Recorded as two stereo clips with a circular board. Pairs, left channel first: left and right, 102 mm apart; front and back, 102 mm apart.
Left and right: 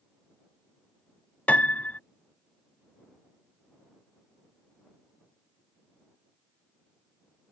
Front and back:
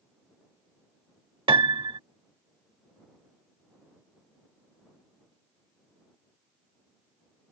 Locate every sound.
1.5 s a piano: 165° left